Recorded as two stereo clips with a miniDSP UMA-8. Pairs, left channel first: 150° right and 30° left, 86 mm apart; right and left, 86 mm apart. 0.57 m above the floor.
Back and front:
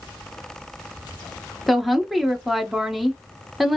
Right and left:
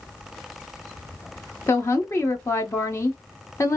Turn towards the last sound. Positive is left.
turn(degrees=-60)